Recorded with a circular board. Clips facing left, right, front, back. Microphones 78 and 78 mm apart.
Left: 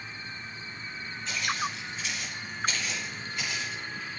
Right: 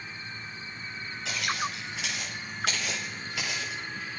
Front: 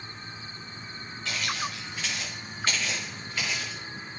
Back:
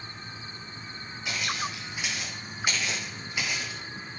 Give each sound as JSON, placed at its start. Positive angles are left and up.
{"t": 1.2, "sound": "footsteps", "azimuth_deg": -105, "distance_m": 6.5}